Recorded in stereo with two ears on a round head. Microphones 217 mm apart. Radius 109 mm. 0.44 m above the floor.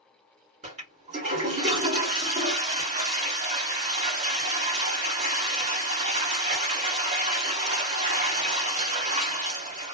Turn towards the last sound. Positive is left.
turn(degrees=-30)  # may be behind; listen again after turning